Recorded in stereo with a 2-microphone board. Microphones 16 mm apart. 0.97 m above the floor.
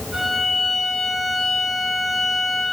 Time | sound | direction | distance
0.1 | a violin | 20° right (ahead or behind) | 3.5 m